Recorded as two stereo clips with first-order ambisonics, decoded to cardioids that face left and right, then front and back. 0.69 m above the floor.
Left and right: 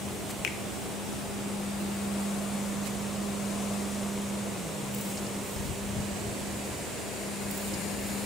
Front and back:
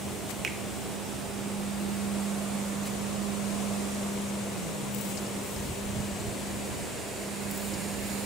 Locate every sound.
0.4 s a finger snap: 120° left, 0.8 m